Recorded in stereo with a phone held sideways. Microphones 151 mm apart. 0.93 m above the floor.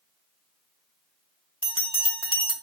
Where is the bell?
35° left (ahead or behind), 1.4 m.